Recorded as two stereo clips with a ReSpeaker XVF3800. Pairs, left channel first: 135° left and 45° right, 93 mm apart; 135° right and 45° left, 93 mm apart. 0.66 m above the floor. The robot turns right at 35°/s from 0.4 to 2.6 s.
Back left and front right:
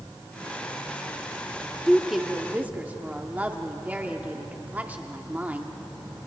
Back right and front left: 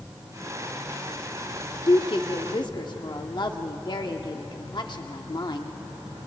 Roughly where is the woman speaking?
Behind right.